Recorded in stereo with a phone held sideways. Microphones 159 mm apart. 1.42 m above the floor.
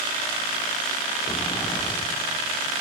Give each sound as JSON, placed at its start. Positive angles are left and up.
{"t": 1.2, "sound": "a sliding door", "side_deg": 30, "distance_m": 1.1}